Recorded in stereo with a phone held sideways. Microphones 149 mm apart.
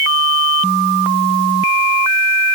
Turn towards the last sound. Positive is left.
No sound to turn to.